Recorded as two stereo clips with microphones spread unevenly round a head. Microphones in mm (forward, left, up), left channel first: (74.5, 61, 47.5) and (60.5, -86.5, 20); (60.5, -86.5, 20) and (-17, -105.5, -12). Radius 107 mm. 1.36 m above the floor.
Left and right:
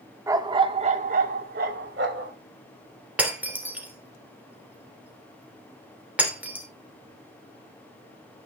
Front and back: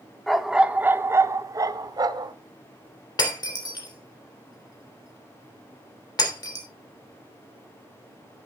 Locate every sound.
0.3 s a dog barking: 25° right, 1.0 m; by 2.3 s 120° right, 1.7 m
3.2 s breaking glass: 15° right, 3 m